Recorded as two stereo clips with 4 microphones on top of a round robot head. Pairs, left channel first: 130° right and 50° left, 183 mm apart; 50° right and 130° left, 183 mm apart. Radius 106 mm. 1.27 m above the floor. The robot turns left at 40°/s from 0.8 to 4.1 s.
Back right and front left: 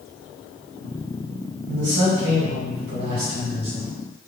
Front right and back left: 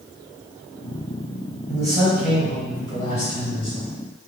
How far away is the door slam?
I don't hear a door slam.